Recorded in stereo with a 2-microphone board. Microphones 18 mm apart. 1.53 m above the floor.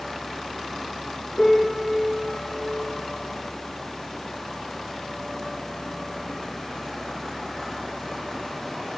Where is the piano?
50° left (ahead or behind), 2.5 m.